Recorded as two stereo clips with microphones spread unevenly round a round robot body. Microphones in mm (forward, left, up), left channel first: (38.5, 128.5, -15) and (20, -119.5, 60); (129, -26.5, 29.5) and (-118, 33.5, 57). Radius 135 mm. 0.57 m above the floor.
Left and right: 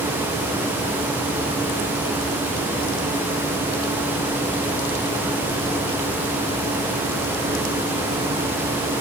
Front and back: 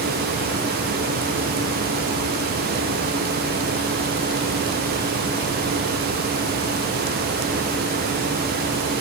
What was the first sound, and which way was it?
Only background noise.